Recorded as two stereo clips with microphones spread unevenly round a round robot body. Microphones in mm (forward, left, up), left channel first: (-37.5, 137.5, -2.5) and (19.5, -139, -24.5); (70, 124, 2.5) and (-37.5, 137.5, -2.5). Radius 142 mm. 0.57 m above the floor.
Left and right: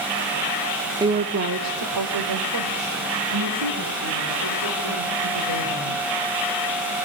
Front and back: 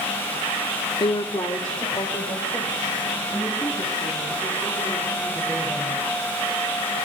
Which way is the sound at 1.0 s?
15° right.